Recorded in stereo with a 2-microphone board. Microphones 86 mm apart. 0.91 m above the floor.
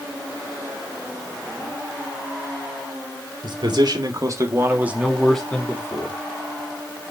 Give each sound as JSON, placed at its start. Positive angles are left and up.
{"t": 3.4, "sound": "a man speaking", "side_deg": -65, "distance_m": 2.5}